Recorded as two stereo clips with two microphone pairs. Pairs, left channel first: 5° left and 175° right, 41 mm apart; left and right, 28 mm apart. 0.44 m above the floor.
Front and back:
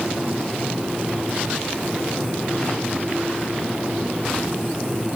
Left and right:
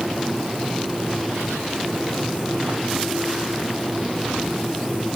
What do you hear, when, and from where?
Only background noise.